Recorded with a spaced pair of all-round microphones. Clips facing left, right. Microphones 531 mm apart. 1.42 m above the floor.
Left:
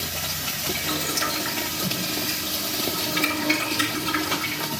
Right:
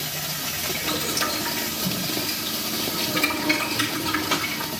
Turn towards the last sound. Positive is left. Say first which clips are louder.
# right 3 dB
turn(degrees=-75)  # may be behind; listen again after turning